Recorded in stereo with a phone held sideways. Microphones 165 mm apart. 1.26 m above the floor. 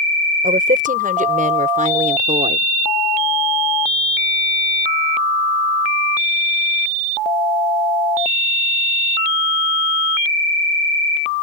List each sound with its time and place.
0.4 s a woman speaking: 65° right (ahead or behind); by 2.6 s 50° right (ahead or behind)